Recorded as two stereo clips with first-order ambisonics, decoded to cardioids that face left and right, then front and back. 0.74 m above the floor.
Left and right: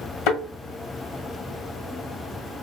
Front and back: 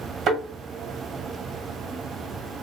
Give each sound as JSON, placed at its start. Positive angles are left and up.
{"t": 0.3, "sound": "a thud", "azimuth_deg": 115, "distance_m": 1.8}